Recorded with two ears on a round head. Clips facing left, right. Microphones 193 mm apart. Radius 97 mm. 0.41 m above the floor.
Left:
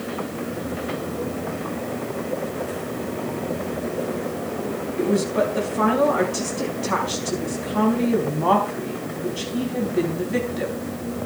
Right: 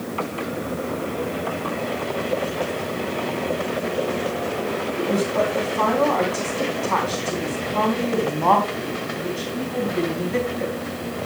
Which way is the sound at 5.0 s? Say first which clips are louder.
Left 2 dB; 15° left (ahead or behind).